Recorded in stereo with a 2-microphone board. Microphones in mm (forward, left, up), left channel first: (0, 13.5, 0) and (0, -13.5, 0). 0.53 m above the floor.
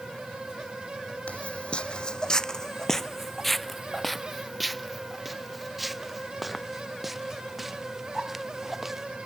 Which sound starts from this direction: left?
Footsteps, at 1.3 s.